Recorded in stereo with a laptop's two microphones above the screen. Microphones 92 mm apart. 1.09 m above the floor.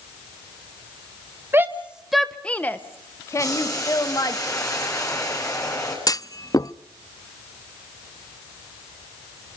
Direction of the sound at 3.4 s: 35° left (ahead or behind).